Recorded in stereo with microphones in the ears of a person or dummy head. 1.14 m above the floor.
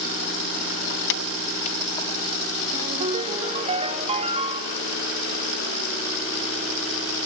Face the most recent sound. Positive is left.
turn(degrees=-30)  # may be behind; listen again after turning